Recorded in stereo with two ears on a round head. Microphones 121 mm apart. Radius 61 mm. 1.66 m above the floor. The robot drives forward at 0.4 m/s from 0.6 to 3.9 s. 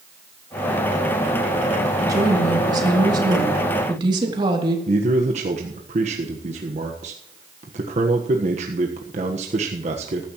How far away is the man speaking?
About 1.4 m.